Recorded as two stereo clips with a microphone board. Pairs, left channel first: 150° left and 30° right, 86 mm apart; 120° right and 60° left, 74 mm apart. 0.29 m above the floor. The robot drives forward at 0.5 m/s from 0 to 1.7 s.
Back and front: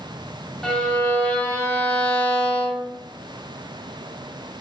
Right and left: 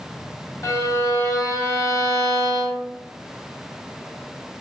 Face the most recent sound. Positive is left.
turn(degrees=-155)